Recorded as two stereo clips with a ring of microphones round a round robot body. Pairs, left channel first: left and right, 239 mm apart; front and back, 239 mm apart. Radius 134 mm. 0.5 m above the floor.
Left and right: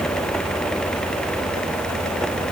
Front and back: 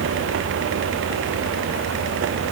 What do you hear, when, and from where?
Only background noise.